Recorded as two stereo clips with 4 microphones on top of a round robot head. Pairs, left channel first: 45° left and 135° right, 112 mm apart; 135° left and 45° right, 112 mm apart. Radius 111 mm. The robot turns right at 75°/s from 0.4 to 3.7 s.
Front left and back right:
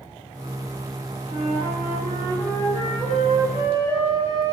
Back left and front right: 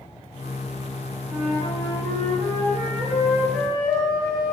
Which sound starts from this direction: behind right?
A flute, at 1.3 s.